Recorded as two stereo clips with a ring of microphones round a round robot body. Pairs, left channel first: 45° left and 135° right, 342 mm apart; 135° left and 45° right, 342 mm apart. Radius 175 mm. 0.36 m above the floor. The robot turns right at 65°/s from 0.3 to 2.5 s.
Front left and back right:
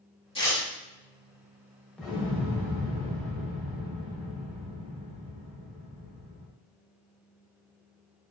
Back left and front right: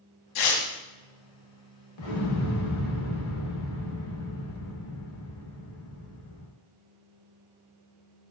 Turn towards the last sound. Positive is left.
turn(degrees=165)